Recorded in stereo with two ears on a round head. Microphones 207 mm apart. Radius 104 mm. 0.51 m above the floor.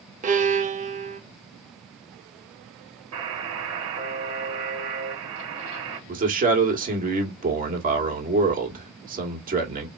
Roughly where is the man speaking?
Right.